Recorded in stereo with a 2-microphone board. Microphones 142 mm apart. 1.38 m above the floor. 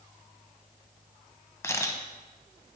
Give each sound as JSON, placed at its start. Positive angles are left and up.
{"t": 1.6, "sound": "a camera shutter", "side_deg": 15, "distance_m": 0.7}